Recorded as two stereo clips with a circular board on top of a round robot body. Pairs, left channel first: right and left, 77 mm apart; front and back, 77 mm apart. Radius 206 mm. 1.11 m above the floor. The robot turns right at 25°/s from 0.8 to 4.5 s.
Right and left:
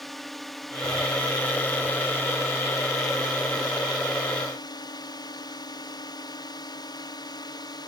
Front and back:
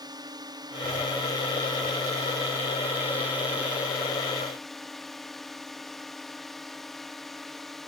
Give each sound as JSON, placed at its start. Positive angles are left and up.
{"t": 0.0, "sound": "a drone", "azimuth_deg": 180}